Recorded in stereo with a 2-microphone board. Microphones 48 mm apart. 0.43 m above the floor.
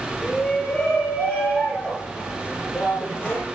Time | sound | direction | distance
0.2 | a shout | 15° left (ahead or behind) | 7 m